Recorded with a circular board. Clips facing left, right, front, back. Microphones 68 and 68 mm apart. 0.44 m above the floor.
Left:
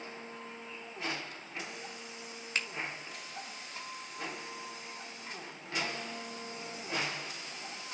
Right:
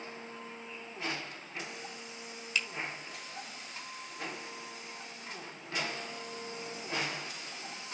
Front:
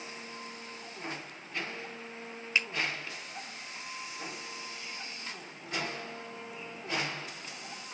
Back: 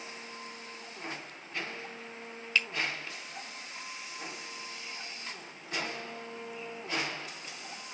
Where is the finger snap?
65° left, 1.4 m.